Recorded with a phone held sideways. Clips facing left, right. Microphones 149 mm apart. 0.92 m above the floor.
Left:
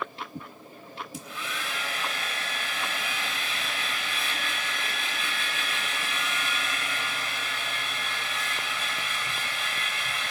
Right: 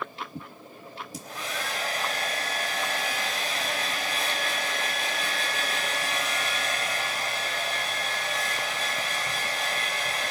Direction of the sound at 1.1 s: 40° right (ahead or behind).